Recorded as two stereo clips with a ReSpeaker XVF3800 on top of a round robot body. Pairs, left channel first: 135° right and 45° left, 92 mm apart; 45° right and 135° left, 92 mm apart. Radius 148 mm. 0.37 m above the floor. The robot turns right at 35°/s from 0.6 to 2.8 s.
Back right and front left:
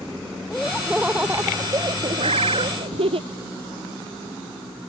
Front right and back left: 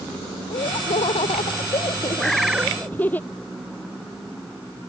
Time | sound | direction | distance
0.5 | laughter | 50° right | ?
2.2 | a bird | 40° left | ?